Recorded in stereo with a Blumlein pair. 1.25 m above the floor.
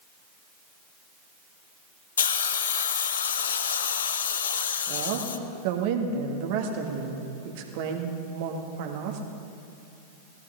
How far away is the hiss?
About 0.5 m.